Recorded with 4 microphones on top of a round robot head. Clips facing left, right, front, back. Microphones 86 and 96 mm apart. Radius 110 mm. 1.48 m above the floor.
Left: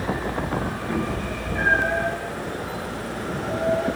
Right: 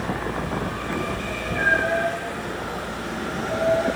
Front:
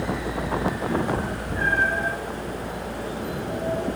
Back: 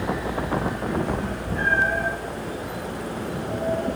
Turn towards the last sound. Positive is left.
turn(degrees=160)